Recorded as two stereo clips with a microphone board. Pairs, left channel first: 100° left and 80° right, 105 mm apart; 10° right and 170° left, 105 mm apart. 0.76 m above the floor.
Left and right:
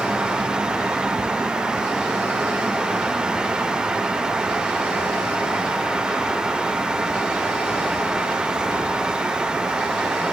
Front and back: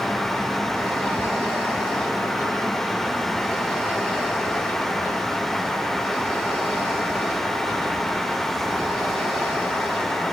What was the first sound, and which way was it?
Only background noise.